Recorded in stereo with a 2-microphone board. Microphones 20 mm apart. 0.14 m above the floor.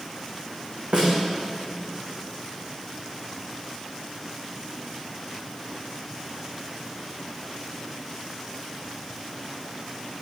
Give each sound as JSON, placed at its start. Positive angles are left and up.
{"t": 0.9, "sound": "a snare drum", "side_deg": -60, "distance_m": 4.5}